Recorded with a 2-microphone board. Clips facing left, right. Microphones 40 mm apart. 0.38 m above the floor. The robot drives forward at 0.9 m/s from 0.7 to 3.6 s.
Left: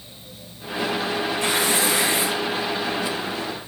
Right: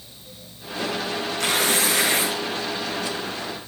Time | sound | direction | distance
1.4 | tearing paper | 85° right | 5 m